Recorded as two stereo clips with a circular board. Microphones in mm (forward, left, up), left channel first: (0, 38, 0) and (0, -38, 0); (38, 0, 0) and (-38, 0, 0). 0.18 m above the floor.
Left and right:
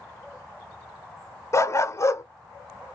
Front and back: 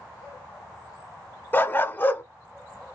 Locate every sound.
1.5 s a dog barking: 55° left, 0.7 m